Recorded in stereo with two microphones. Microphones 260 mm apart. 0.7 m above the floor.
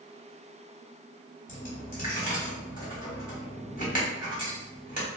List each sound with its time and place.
1.5 s a dropped coin: 30° left (ahead or behind), 1.2 m